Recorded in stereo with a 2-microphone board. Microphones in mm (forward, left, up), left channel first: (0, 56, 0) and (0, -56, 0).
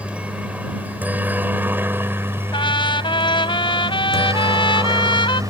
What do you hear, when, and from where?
0.0 s a helicopter: 10° right (ahead or behind); by 5.5 s 30° right (ahead or behind)
2.5 s a trumpet: 50° left (ahead or behind)